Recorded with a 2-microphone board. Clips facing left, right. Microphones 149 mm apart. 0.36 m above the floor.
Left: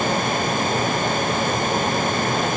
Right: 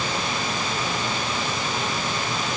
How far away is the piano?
I don't hear a piano.